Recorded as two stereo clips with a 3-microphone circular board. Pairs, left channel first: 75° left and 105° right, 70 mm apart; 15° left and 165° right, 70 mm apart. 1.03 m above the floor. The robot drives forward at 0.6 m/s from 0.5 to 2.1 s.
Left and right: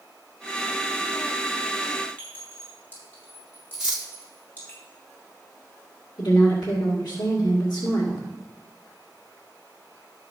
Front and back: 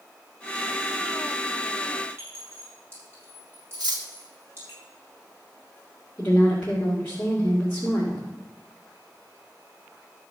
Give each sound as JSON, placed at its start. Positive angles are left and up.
{"t": 2.2, "sound": "a clink", "azimuth_deg": 140, "distance_m": 6.0}
{"t": 3.7, "sound": "cutlery clinking", "azimuth_deg": 175, "distance_m": 1.6}
{"t": 6.2, "sound": "a woman speaking", "azimuth_deg": 95, "distance_m": 2.5}